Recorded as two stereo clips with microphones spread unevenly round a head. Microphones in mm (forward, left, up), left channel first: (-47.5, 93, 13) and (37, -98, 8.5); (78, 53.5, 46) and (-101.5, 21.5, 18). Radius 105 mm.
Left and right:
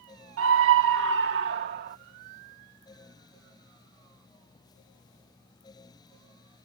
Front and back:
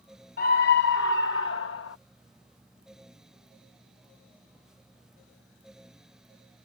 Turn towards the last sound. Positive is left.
turn(degrees=-20)